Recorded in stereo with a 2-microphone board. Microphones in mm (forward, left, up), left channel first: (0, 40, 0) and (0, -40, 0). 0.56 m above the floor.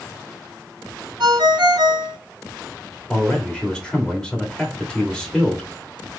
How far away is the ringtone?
About 2.5 m.